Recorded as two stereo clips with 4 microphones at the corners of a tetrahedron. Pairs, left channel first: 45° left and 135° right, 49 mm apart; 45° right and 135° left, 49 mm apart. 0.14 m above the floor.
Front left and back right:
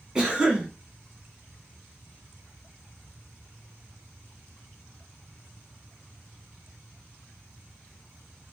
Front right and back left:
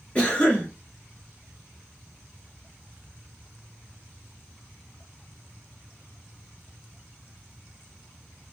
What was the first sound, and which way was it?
A cough, 80° right.